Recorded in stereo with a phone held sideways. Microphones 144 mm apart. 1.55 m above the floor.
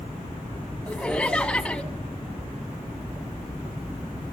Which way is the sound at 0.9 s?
5° left (ahead or behind).